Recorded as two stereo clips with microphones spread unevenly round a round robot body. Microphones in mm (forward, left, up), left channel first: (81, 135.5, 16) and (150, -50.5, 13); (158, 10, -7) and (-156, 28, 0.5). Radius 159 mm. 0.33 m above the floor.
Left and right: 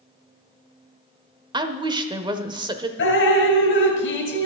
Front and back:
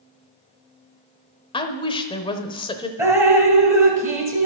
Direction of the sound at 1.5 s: 50° right.